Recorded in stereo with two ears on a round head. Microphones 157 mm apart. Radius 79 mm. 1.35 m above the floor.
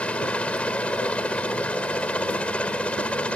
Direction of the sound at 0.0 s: 5° left (ahead or behind).